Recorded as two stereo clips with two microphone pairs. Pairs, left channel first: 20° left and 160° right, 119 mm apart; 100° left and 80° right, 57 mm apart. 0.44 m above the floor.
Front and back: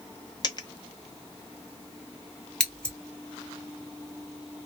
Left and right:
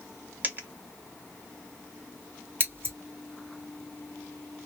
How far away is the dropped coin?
About 0.6 m.